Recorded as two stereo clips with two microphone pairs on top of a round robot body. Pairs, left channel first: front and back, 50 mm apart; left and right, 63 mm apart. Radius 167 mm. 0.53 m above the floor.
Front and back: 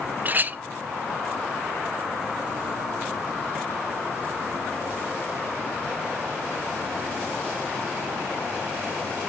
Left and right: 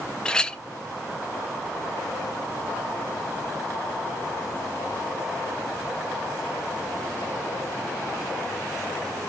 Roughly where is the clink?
Behind left.